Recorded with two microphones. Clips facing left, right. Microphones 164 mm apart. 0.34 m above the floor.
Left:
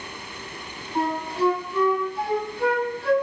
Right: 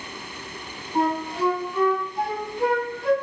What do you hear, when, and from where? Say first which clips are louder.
0.9 s a flute: right 1 dB; 15° right (ahead or behind), 2.5 m